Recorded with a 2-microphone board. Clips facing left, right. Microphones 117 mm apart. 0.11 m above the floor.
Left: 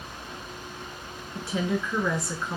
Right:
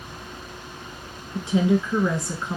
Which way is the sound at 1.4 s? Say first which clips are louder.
Right 7 dB; 20° right (ahead or behind).